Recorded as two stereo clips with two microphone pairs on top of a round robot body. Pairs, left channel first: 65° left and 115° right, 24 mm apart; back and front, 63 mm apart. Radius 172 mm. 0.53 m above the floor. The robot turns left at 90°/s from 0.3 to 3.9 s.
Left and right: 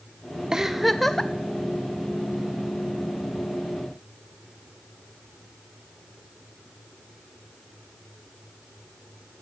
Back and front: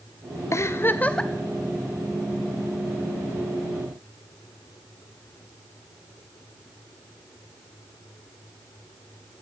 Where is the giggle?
175° left, 0.7 m; by 1.3 s 100° left, 0.7 m.